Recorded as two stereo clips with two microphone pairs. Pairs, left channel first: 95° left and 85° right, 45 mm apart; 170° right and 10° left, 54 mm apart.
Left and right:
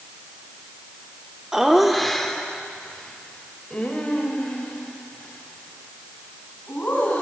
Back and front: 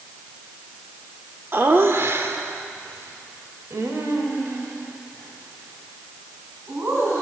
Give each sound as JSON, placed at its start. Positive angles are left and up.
{"t": 1.5, "sound": "laughter", "azimuth_deg": -10, "distance_m": 1.1}